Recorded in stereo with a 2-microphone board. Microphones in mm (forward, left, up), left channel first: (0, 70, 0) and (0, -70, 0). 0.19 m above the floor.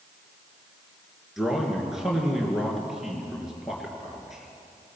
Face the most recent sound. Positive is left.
turn(degrees=-5)  # may be behind; listen again after turning